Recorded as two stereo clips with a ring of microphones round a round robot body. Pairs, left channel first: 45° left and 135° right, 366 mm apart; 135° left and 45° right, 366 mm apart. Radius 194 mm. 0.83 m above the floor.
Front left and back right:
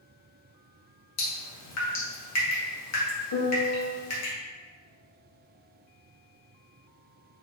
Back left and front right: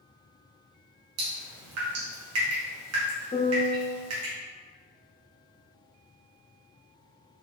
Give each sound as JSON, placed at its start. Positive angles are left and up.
{"t": 1.2, "sound": "dripping", "azimuth_deg": 0, "distance_m": 2.5}
{"t": 3.3, "sound": "a piano", "azimuth_deg": 60, "distance_m": 1.4}